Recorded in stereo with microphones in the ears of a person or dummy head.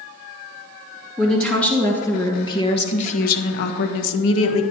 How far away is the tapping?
No tapping in this recording.